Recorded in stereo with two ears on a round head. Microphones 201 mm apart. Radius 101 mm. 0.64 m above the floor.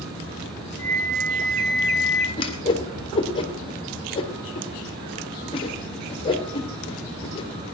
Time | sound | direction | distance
0.8 | a flute | 15° left (ahead or behind) | 5.5 m
2.4 | a whoosh | 25° left (ahead or behind) | 2.5 m